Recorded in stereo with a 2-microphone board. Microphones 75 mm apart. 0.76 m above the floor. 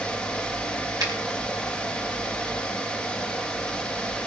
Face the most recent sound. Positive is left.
turn(degrees=-65)  # may be behind; listen again after turning